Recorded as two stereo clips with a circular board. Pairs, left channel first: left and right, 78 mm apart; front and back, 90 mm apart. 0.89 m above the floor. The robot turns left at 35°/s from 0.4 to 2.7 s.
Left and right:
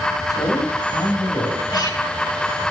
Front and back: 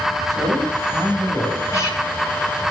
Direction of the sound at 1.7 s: 60° left.